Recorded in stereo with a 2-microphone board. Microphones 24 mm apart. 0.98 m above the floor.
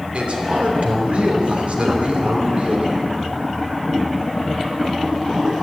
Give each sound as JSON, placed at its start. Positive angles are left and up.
{"t": 0.1, "sound": "a man speaking", "side_deg": -65, "distance_m": 3.0}
{"t": 1.9, "sound": "a gunshot", "side_deg": -65, "distance_m": 1.1}